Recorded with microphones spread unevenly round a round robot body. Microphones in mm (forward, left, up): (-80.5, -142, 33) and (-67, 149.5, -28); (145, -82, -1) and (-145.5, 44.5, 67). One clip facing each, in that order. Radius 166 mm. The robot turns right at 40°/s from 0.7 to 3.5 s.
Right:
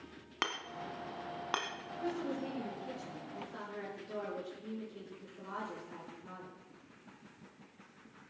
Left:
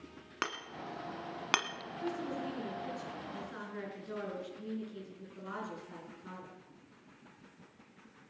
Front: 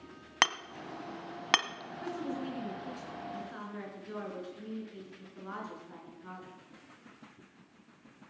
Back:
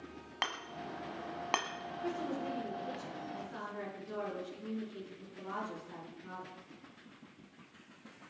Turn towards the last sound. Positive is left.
turn(degrees=45)